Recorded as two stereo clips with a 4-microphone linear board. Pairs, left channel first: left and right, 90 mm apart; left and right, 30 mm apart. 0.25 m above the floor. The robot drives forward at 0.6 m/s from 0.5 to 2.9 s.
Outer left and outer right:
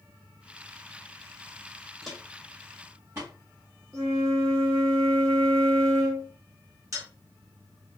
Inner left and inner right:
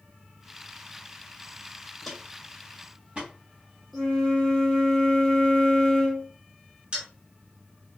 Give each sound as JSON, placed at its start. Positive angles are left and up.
{"t": 2.0, "sound": "footsteps", "side_deg": 5, "distance_m": 0.8}
{"t": 3.9, "sound": "a flute", "side_deg": 5, "distance_m": 1.4}
{"t": 6.9, "sound": "a dropped coin", "side_deg": -35, "distance_m": 1.4}